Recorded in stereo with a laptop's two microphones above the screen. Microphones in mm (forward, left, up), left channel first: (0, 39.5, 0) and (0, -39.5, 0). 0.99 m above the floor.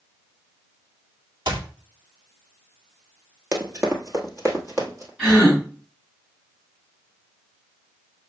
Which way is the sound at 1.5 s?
65° right (ahead or behind).